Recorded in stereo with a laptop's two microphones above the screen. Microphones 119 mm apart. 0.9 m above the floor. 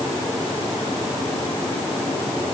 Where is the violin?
I don't hear a violin.